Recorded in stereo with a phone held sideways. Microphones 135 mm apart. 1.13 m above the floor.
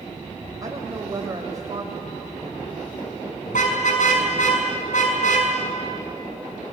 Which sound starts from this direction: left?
A car horn, at 3.5 s.